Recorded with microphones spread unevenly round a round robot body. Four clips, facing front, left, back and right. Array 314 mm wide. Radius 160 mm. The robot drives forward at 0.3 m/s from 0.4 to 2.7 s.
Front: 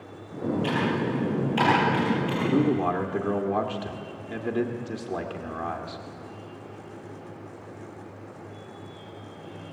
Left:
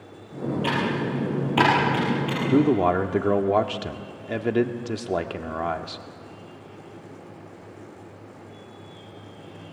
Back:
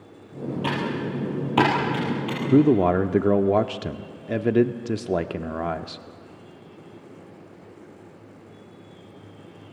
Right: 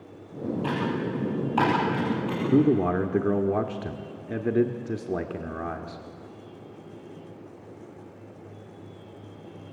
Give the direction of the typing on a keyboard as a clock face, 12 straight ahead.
7 o'clock.